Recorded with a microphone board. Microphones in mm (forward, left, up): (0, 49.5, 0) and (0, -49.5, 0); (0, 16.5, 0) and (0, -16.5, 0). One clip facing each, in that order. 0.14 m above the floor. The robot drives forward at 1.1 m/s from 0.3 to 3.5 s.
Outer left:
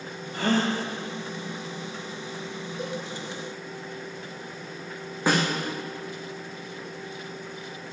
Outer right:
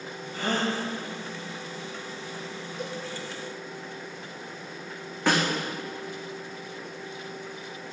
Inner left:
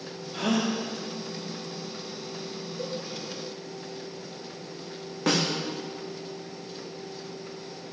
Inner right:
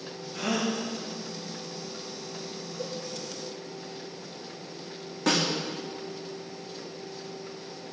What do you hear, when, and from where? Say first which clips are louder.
0.3 s a gasp: outer left 4 dB, inner left 2 dB; 70° left (ahead or behind), 2.5 m; by 0.8 s 75° left (ahead or behind), 2.5 m
2.8 s a cowbell: outer left 2 dB, inner left 2 dB; 45° left (ahead or behind), 4 m
5.3 s a snare drum: outer left 1 dB, even; 15° left (ahead or behind), 2.0 m